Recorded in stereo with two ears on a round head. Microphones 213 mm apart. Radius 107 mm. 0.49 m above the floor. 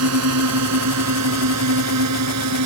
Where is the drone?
70° right (ahead or behind); by 2.7 s 80° right.